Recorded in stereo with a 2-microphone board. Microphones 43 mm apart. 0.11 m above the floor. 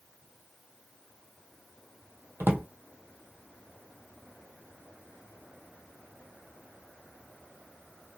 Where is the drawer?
50° right (ahead or behind), 0.9 m.